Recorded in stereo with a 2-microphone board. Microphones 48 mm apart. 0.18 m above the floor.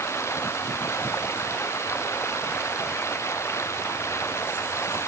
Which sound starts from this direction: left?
Running water, at 0.0 s.